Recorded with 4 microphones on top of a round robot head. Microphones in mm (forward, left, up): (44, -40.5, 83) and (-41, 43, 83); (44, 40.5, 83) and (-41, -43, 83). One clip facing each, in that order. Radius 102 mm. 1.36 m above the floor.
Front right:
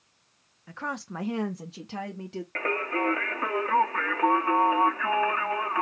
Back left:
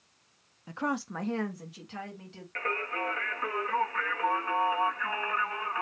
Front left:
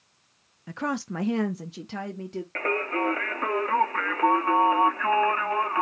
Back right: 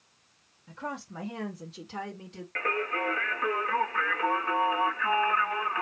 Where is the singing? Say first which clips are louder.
Front right 5 dB, front left 3 dB; straight ahead, 0.9 m.